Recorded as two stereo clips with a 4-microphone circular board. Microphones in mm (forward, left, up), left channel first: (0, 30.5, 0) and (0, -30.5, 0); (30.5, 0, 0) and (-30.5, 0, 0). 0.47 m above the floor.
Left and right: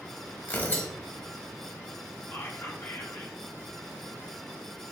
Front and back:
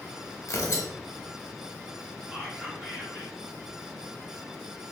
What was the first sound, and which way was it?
Tearing paper, 35° left.